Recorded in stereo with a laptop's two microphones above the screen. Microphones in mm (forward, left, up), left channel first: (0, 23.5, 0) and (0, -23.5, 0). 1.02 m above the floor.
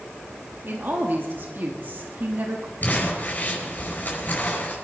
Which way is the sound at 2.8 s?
40° left (ahead or behind).